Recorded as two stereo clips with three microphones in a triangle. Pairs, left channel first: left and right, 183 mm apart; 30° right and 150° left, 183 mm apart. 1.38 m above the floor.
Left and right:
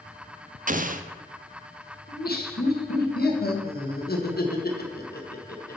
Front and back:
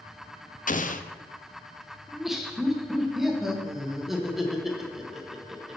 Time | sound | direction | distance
0.7 | an explosion | 60° right | 0.6 m
2.1 | laughter | 60° left | 1.7 m